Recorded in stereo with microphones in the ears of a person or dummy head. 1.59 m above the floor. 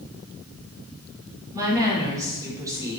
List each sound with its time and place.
1.5 s a woman speaking: 20° right (ahead or behind), 5 m